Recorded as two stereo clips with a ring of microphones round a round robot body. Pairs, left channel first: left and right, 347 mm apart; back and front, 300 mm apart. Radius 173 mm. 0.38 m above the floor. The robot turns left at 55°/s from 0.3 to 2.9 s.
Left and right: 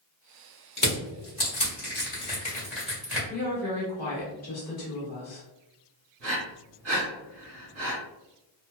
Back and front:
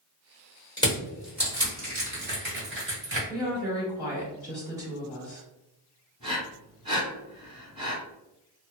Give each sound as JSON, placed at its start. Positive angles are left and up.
{"t": 0.8, "sound": "crushing", "azimuth_deg": 115, "distance_m": 1.5}
{"t": 3.3, "sound": "a woman speaking", "azimuth_deg": 65, "distance_m": 1.1}
{"t": 6.2, "sound": "breathing", "azimuth_deg": -70, "distance_m": 1.3}